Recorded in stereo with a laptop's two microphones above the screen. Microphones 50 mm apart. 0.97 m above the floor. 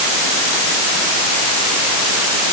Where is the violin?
No violin in this recording.